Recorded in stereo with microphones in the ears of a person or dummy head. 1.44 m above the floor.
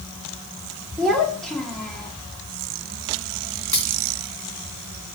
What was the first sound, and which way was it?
A child speaking, 5° left (ahead or behind).